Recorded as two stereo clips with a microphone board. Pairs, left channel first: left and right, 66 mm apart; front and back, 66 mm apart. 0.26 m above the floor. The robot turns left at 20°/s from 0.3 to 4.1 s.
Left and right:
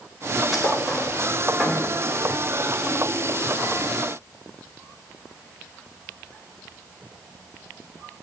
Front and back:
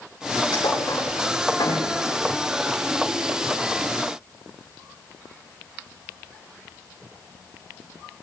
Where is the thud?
Straight ahead, 9 m; by 1.9 s 25° right, 9 m.